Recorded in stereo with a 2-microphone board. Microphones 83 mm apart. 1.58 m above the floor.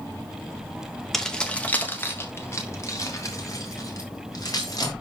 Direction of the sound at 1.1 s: 5° left (ahead or behind).